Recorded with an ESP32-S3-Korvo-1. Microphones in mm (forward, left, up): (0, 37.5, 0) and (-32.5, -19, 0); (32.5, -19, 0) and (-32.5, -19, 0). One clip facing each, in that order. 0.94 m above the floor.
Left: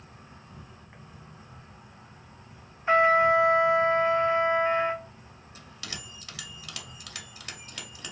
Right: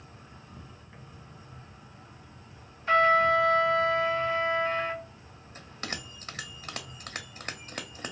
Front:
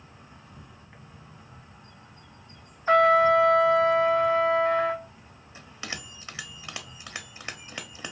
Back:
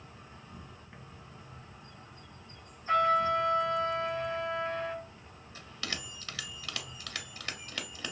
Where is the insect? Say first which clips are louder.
Even, front 1 dB; 75° left, 1.5 m.